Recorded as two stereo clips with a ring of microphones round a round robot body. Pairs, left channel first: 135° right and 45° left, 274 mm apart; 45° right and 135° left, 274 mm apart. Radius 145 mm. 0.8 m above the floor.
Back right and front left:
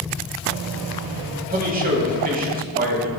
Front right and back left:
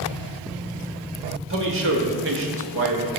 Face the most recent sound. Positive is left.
turn(degrees=100)